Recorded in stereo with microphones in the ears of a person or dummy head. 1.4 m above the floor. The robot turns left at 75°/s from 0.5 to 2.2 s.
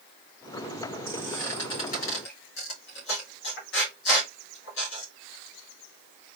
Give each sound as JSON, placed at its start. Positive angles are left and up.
{"t": 1.1, "sound": "a squeak", "side_deg": -15, "distance_m": 2.0}